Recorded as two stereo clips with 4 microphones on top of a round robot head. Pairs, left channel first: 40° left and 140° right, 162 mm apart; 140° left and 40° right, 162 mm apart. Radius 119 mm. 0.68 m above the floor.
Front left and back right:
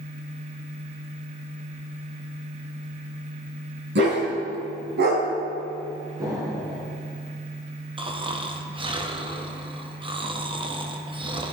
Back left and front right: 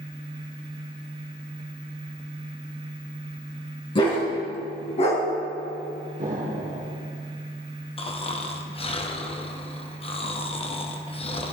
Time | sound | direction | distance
4.0 | a dog barking | 160° right | 3.5 m
6.2 | an explosion | 70° right | 2.5 m
8.0 | snoring | 175° left | 1.3 m